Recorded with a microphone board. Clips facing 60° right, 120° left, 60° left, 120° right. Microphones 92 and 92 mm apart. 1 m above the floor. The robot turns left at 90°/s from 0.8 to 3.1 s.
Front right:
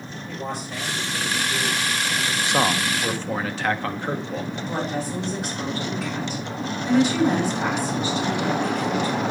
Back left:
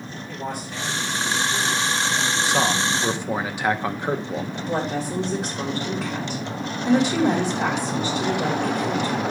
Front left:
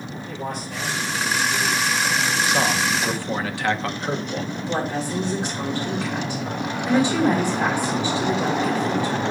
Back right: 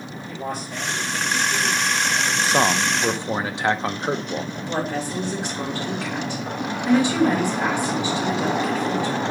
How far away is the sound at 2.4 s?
About 0.6 m.